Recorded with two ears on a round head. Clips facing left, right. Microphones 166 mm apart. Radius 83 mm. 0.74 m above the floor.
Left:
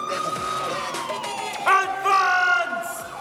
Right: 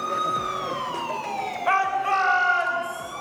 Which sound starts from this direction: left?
A shout, at 1.7 s.